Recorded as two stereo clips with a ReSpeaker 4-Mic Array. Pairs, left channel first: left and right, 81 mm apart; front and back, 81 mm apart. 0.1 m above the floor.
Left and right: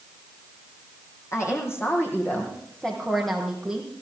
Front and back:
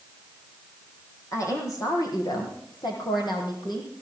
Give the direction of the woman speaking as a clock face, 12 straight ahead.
11 o'clock.